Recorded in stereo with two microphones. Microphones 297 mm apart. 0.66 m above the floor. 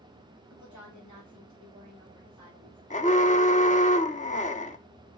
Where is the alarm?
25° left (ahead or behind), 0.7 m.